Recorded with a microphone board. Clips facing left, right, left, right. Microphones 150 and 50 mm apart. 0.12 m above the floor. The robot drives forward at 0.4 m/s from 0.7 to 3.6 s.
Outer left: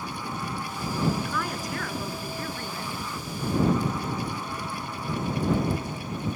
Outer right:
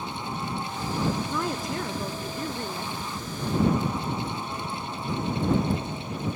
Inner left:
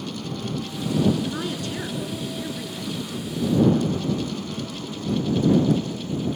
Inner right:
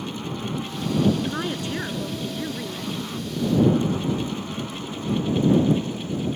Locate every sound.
1.2 s a woman speaking: 25° right (ahead or behind), 1.2 m; by 2.9 s 20° right (ahead or behind), 1.4 m